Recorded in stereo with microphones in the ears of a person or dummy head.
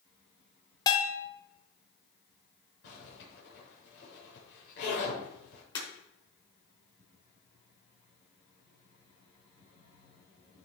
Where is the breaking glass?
25° left (ahead or behind), 5 m.